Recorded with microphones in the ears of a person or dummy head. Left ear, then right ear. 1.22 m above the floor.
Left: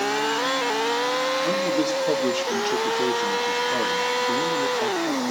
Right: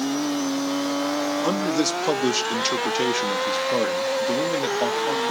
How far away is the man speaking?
About 1.7 m.